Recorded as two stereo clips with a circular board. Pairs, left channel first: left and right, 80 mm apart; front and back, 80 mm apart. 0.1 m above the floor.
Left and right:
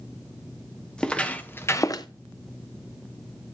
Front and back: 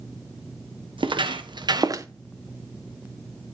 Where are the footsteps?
170° left, 1.4 m; by 2.1 s 125° left, 0.6 m.